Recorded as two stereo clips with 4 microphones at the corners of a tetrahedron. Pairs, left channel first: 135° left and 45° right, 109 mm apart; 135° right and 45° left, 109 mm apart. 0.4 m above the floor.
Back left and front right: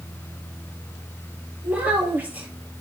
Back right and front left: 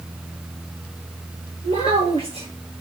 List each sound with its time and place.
1.6 s a child speaking: 30° left, 5 m